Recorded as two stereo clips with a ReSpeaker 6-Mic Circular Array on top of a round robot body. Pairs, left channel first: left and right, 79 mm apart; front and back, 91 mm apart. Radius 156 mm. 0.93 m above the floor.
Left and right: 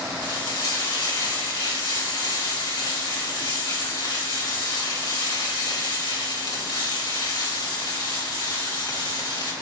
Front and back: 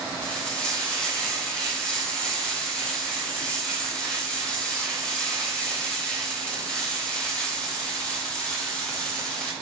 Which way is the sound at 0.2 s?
75° left.